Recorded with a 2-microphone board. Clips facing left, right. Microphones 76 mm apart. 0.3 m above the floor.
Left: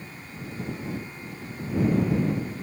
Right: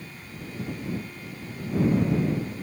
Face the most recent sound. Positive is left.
turn(degrees=0)  # may be behind; listen again after turning